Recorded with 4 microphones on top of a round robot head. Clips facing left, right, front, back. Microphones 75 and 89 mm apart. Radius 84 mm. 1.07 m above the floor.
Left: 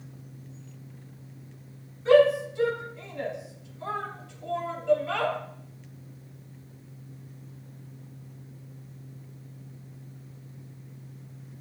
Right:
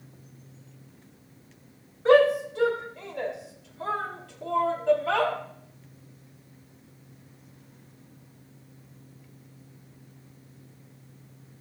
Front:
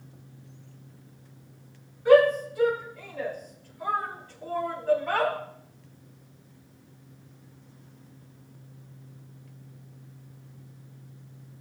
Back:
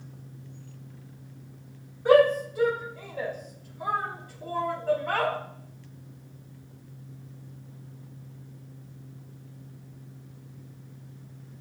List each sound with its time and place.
2.0 s a shout: 125° right, 5 m; by 5.3 s 90° right, 3.5 m